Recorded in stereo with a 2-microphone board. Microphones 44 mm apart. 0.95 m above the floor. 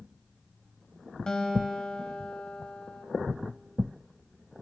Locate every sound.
1.3 s a guitar: 15° left (ahead or behind), 1.3 m